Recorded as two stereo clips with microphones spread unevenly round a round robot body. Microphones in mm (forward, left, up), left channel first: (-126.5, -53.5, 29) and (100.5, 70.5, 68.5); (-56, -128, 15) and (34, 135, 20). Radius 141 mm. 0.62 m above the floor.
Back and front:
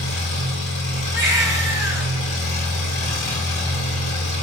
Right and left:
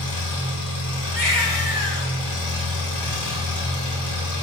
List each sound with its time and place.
0.0 s an engine running: 90° right, 4.5 m
1.1 s a baby crying: 50° right, 1.7 m